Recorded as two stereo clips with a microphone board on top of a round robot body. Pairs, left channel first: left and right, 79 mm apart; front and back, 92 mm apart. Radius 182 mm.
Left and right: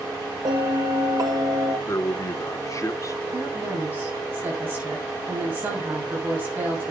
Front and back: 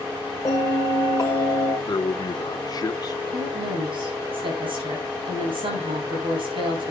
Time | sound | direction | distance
0.5 | a bell | 55° right | 1.3 m
1.9 | a man speaking | 45° left | 1.6 m
3.3 | a woman speaking | 155° right | 8 m